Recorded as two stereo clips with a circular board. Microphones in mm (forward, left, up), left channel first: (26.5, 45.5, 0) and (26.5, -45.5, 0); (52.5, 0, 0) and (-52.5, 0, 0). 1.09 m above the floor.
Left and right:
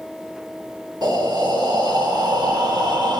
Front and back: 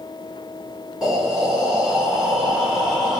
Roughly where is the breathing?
Right.